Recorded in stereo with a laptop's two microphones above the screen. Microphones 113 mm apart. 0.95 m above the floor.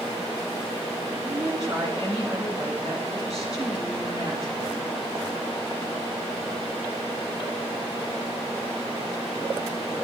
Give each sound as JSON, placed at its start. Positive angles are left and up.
{"t": 1.2, "sound": "a woman speaking", "side_deg": 35, "distance_m": 7.0}